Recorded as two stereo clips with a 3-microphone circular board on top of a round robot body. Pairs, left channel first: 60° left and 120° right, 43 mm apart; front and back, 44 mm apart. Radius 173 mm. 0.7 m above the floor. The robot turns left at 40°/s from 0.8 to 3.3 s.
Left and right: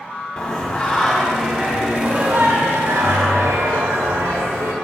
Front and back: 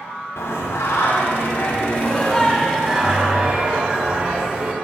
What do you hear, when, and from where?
0.4 s singing: 20° right, 1.0 m; by 4.7 s 120° right, 1.0 m